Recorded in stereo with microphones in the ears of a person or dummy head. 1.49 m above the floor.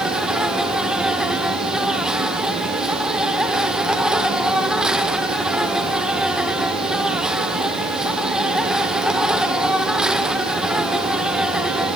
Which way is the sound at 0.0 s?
5° right (ahead or behind).